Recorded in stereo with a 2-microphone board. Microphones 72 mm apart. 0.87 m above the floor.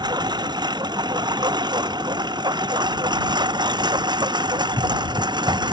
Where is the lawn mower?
75° right (ahead or behind); by 5.7 s 90° right.